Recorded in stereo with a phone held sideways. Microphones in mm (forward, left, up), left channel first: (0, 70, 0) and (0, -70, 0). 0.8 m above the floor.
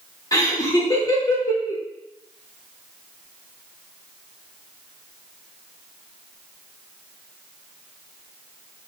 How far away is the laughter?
About 1.2 m.